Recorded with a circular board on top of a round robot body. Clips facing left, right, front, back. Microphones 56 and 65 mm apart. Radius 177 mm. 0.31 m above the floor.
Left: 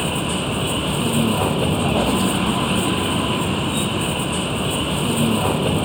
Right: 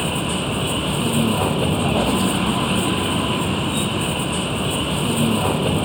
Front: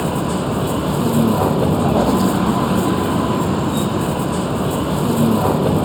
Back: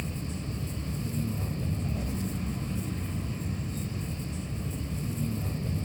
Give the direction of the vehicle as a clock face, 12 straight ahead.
12 o'clock.